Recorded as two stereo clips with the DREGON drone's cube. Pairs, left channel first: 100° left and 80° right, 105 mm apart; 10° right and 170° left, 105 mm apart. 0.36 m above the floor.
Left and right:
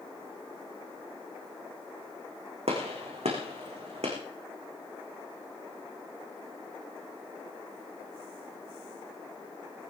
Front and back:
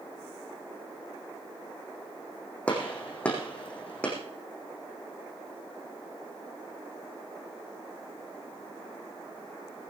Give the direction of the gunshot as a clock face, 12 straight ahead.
3 o'clock.